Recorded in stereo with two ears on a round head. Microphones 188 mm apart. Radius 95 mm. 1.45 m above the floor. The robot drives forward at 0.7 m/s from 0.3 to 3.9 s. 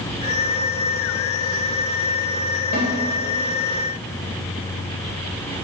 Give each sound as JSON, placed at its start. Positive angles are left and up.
{"t": 2.7, "sound": "a snare drum", "side_deg": 45, "distance_m": 1.5}